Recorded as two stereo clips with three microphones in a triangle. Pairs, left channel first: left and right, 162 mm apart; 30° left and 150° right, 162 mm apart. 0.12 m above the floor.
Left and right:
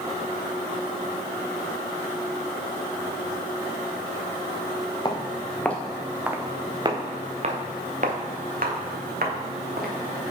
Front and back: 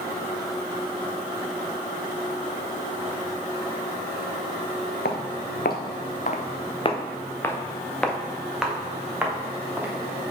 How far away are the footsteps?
About 1.2 m.